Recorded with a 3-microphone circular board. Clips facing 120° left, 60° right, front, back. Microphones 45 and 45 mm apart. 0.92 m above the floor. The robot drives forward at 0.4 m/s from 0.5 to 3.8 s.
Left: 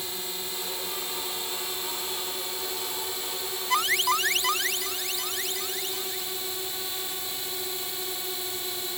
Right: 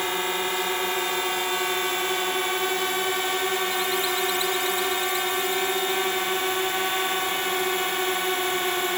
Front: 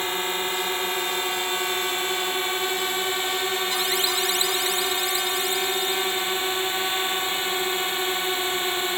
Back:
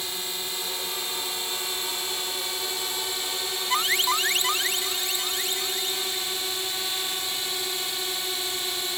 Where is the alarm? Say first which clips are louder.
Left 1 dB, back 1 dB; 135° left.